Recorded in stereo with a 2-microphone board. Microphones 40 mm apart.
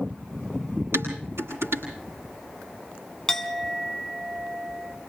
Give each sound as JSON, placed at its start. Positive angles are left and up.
{"t": 0.9, "sound": "dishes clattering", "side_deg": -85, "distance_m": 8.5}
{"t": 3.3, "sound": "a clink", "side_deg": 10, "distance_m": 1.7}